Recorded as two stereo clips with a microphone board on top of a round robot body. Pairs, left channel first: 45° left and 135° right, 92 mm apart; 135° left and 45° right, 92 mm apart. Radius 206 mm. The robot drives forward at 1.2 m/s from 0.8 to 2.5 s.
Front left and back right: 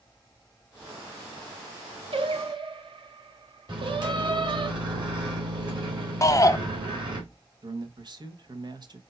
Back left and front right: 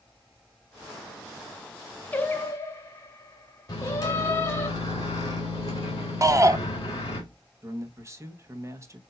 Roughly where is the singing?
Behind right.